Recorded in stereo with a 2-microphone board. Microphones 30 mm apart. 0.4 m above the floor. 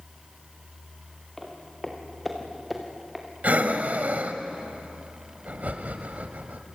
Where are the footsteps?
10° left (ahead or behind), 5 m; by 3.3 s 10° right (ahead or behind), 4.5 m.